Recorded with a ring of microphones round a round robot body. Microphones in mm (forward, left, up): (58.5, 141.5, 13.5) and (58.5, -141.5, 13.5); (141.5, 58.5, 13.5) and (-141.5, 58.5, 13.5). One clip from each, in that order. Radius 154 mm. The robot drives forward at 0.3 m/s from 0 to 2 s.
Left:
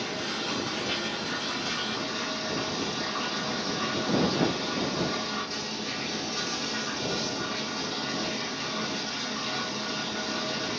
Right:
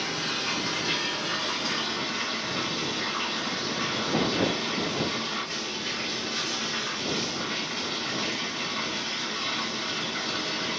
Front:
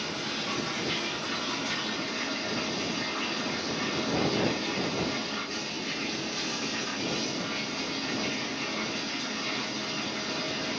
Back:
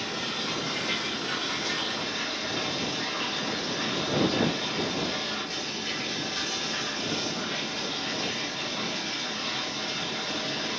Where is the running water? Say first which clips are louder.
Right 3 dB, back 2 dB; 90° right, 1.0 m; by 10.8 s 125° right, 1.1 m.